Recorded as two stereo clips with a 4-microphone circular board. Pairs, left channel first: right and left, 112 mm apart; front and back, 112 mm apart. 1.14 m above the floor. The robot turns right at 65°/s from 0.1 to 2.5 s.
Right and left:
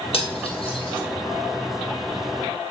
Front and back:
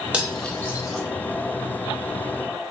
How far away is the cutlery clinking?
About 0.7 m.